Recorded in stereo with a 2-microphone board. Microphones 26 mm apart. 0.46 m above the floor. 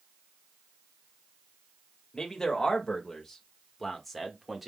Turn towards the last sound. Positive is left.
turn(degrees=-10)  # may be behind; listen again after turning